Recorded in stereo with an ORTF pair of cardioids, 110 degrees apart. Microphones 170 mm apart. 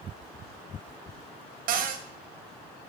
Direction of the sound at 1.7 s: 55° right.